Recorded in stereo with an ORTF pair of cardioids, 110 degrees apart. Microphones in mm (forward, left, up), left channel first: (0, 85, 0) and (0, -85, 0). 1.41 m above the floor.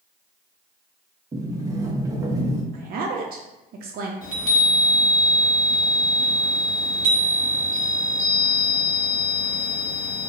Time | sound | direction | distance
1.3 | a sliding door | 20° right | 0.7 m
2.7 | a woman speaking | 60° right | 0.6 m
4.2 | a chime | 30° left | 1.3 m